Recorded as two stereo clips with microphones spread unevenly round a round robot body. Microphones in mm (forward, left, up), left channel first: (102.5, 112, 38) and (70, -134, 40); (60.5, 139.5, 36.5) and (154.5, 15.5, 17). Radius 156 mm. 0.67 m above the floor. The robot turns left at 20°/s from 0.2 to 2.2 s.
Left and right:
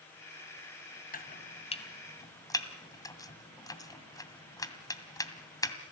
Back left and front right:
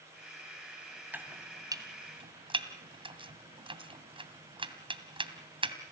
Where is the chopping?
25° left, 2.5 m; by 5.8 s 5° left, 2.5 m.